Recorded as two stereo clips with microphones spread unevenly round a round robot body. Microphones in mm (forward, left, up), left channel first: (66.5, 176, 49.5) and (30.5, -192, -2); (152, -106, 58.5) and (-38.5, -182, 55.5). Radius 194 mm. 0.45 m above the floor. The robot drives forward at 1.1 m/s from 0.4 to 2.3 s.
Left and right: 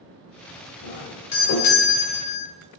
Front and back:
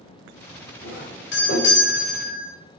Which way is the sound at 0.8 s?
30° left.